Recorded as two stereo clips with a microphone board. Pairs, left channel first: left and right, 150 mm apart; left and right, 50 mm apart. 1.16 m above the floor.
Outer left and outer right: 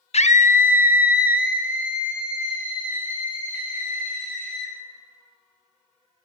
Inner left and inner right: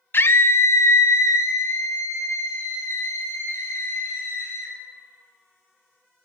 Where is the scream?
45° left (ahead or behind), 0.9 m; by 4.7 s 65° left (ahead or behind), 4 m.